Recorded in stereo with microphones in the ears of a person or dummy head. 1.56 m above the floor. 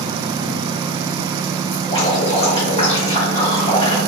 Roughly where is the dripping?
Left.